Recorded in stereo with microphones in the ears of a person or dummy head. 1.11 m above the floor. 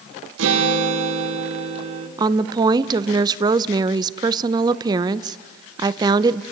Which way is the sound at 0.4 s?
75° right (ahead or behind).